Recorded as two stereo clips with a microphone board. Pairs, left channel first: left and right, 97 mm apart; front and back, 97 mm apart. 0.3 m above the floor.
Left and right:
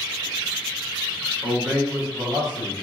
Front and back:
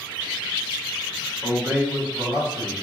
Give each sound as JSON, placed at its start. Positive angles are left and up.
{"t": 1.4, "sound": "a man speaking", "azimuth_deg": -135, "distance_m": 1.3}